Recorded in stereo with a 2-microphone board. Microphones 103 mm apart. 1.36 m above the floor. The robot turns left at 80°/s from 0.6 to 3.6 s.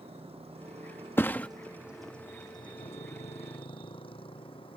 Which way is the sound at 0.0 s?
75° right (ahead or behind).